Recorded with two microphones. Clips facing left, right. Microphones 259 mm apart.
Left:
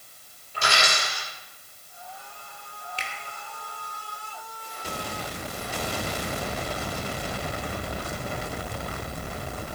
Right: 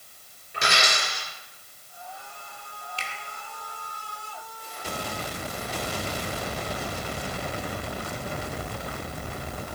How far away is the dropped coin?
About 3.5 m.